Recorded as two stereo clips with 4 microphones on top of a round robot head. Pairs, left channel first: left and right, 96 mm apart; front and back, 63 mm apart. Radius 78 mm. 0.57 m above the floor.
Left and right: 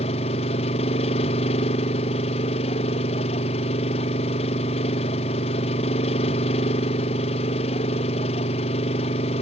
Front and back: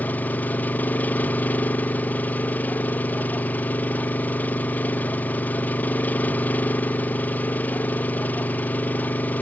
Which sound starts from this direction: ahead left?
An engine running, at 0.0 s.